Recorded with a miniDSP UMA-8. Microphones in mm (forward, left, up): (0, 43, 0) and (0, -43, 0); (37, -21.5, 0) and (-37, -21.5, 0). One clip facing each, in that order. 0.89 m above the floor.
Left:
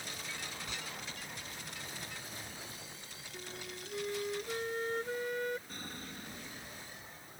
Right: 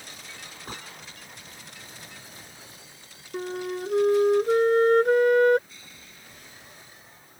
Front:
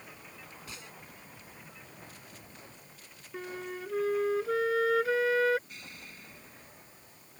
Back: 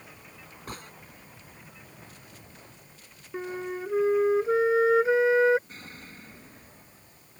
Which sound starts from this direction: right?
A flute, at 3.3 s.